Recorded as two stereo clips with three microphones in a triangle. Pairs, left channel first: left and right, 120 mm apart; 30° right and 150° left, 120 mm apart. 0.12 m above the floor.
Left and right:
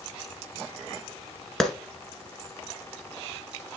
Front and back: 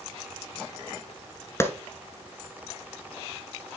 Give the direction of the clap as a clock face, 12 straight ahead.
12 o'clock.